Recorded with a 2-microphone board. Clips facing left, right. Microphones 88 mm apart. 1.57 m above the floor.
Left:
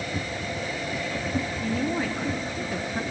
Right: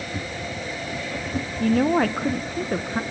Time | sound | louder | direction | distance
1.6 | a woman speaking | right 11 dB | 65° right (ahead or behind) | 0.9 m